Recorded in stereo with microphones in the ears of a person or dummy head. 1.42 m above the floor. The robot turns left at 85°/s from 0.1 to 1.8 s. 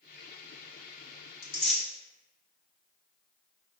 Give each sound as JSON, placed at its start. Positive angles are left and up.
{"t": 1.4, "sound": "tearing paper", "side_deg": 25, "distance_m": 1.5}